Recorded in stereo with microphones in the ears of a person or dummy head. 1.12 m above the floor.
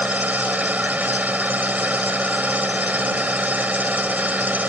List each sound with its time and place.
0.0 s an engine running: 5° right (ahead or behind)